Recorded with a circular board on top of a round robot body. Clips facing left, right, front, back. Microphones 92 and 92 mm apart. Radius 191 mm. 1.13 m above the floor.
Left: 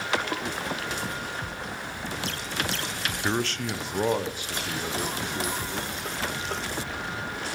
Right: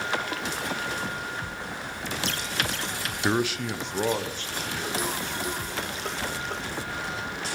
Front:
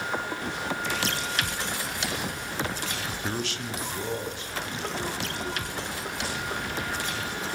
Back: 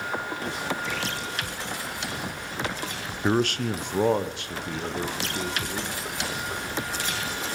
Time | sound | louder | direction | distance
3.2 | a man speaking | right 3 dB, back 11 dB | 160° right | 0.6 m